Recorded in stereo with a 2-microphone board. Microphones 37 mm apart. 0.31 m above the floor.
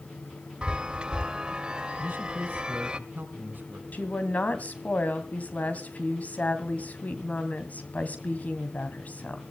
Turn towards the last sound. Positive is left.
turn(degrees=45)  # may be behind; listen again after turning